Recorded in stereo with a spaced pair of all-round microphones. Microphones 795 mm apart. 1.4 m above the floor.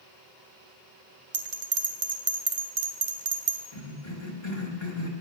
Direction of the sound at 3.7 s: 35° left (ahead or behind).